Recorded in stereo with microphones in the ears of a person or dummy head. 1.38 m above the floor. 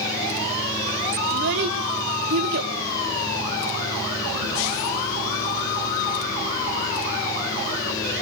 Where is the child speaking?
65° right (ahead or behind), 3 m.